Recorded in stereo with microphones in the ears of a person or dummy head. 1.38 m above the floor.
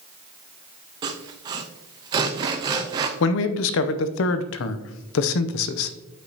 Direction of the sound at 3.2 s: 75° left (ahead or behind).